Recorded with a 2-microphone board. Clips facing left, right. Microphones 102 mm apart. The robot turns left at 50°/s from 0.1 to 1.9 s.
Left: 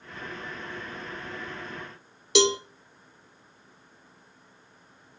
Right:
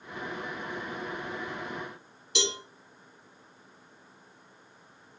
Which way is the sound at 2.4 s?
75° left (ahead or behind).